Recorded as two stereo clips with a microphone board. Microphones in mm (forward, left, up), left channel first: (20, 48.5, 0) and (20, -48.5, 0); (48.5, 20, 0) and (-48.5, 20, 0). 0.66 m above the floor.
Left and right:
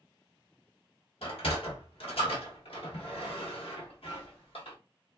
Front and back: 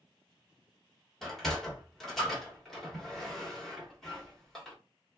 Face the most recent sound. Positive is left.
turn(degrees=85)